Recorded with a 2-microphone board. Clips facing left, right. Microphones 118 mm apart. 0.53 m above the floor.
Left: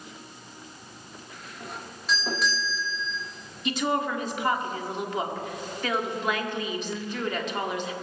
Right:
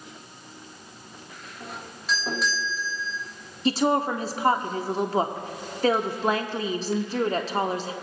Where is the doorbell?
Centre (ahead or behind), 1.3 m.